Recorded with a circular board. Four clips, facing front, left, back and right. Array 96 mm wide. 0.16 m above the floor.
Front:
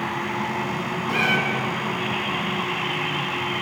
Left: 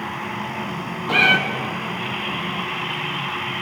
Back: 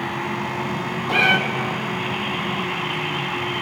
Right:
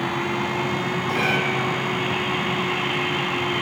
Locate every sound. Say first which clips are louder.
1.1 s a cat meowing: left 6 dB, back 4 dB; 115° left, 0.7 m